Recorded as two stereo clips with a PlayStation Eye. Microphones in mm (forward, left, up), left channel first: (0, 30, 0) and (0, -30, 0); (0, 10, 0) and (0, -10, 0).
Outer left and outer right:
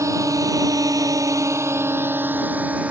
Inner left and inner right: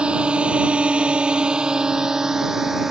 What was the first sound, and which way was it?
A drone, 60° right (ahead or behind).